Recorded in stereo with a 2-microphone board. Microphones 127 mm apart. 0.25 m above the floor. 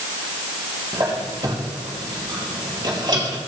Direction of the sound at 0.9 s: 35° right (ahead or behind).